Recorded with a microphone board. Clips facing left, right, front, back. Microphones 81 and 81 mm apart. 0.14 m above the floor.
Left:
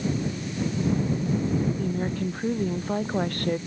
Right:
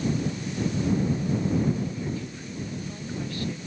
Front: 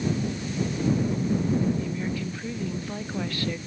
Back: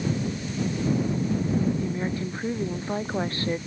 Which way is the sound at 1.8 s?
125° left.